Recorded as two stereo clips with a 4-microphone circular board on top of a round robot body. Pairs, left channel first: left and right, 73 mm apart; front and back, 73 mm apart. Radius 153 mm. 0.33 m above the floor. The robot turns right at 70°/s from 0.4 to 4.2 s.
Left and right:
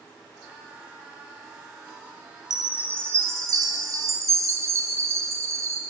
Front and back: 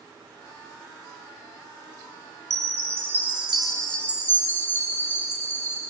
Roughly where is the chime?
Behind.